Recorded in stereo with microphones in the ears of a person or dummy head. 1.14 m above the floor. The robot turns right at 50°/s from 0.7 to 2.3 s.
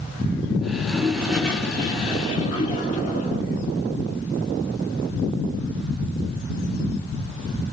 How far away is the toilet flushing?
About 3 m.